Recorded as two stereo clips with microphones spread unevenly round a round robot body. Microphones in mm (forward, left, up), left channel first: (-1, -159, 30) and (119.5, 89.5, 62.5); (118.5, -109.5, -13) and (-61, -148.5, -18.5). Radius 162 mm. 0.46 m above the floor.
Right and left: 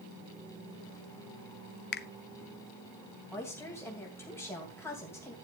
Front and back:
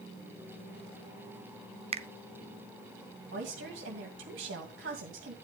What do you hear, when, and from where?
1.9 s a finger snap: 130° right, 0.6 m
3.3 s a woman speaking: 165° left, 2.5 m